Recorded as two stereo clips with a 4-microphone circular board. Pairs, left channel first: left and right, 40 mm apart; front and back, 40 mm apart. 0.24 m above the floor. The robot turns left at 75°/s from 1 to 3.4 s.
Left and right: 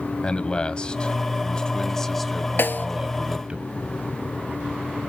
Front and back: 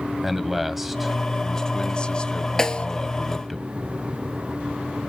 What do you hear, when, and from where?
0.2 s a man speaking: 100° left, 1.1 m; by 3.6 s 80° right, 1.1 m
2.6 s a snare drum: 75° left, 0.9 m; by 2.9 s 55° left, 0.9 m